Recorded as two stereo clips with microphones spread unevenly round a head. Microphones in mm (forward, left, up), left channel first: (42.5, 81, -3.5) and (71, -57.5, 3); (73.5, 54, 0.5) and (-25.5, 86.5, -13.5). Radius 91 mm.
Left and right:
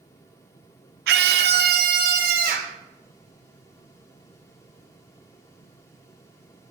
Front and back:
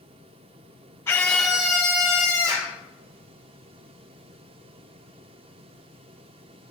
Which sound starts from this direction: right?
A scream, at 1.1 s.